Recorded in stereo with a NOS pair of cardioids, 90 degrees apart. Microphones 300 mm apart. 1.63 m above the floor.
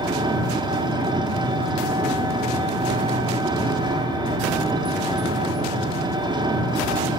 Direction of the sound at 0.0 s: 15° right.